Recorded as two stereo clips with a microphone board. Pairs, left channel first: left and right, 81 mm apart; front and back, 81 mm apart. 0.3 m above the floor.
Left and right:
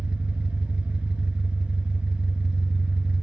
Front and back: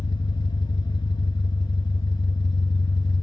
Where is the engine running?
15° right, 1.0 m.